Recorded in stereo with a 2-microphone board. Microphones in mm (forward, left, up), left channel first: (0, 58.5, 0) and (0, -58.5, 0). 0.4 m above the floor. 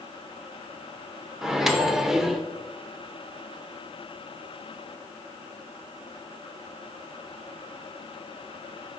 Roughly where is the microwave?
Centre.